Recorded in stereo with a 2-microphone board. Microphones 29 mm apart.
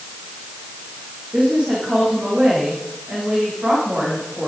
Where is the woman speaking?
40° right (ahead or behind), 10 m.